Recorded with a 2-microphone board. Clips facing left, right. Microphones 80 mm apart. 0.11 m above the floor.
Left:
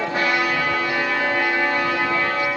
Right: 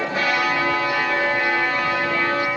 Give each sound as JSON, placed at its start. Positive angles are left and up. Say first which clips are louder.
{"t": 0.1, "sound": "a trumpet", "louder": "even", "side_deg": 45, "distance_m": 4.5}